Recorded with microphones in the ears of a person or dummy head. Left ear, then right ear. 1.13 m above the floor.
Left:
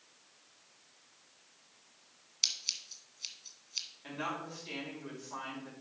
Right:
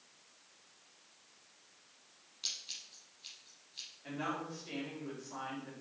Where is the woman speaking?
25° left (ahead or behind), 4 m.